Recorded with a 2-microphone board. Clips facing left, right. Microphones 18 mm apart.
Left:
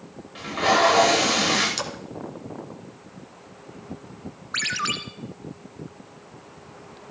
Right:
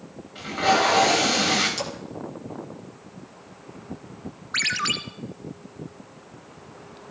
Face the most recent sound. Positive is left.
turn(degrees=0)  # may be behind; listen again after turning